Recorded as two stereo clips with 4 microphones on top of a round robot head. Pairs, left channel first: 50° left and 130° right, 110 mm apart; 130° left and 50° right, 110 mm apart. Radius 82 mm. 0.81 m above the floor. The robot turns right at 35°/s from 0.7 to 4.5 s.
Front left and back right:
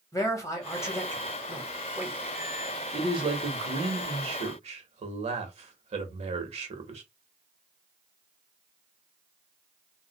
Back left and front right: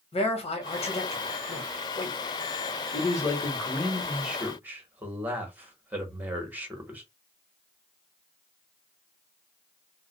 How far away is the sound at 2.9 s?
About 1.3 m.